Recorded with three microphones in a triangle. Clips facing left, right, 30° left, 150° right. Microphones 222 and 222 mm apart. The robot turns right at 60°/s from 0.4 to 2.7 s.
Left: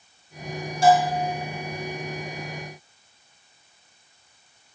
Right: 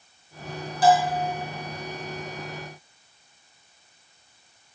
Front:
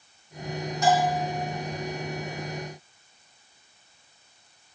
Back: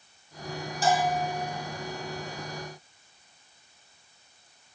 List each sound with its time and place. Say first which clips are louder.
0.8 s a bell: left 1 dB, front 2 dB; 155° left, 4.5 m; by 1.3 s 175° right, 4.5 m